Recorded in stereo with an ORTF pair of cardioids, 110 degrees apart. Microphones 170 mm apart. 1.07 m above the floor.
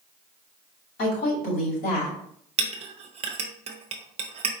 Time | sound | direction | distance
1.0 | a woman speaking | 65° left | 2.5 m
2.6 | a clink | 40° right | 0.8 m